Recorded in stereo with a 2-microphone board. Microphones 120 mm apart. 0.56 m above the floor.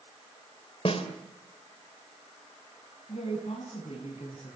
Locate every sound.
0.8 s a snare drum: 55° left (ahead or behind), 2.5 m
3.1 s a woman speaking: 70° left (ahead or behind), 4 m